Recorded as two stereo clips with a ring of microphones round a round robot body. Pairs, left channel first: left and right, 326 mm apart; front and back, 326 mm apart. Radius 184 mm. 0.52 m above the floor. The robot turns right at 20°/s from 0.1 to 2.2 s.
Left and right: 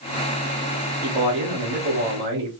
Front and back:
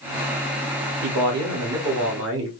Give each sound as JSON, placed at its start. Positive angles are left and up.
{"t": 1.0, "sound": "a man speaking", "azimuth_deg": -165, "distance_m": 1.3}